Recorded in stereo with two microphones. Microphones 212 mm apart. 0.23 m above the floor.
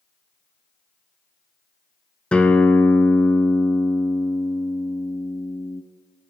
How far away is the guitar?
About 0.7 m.